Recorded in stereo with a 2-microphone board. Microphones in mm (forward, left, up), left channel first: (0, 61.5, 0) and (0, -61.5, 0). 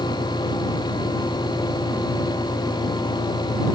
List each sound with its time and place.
0.0 s an engine running: 5° right (ahead or behind)